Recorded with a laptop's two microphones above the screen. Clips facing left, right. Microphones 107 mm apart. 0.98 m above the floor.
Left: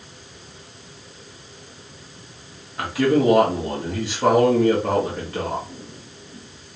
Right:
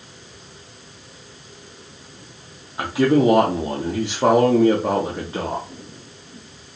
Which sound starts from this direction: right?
A man speaking, at 2.8 s.